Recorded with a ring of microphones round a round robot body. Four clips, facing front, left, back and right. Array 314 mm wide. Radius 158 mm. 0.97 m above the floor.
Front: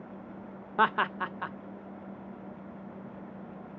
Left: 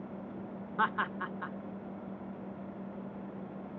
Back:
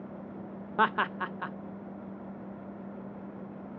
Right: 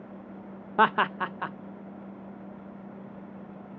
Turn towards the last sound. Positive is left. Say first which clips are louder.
# right 9 dB, front 1 dB
turn(degrees=-95)